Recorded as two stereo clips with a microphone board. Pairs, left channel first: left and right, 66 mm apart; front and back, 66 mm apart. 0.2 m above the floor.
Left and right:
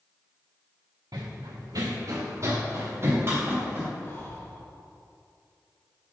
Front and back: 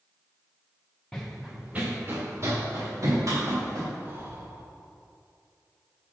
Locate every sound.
1.1 s running footsteps: 80° right, 1.3 m; by 3.9 s 150° right, 3.5 m
4.0 s breathing: 135° left, 1.7 m